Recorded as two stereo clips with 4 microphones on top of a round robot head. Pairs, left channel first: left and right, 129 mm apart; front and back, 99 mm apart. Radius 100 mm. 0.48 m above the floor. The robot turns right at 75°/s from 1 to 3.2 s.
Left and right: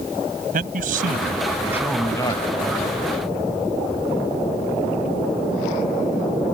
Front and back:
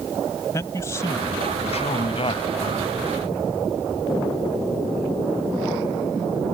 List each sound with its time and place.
0.5 s a man speaking: 70° right; by 2.6 s 50° left